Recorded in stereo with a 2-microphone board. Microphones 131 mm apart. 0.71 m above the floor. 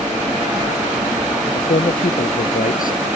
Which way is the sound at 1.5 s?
85° left.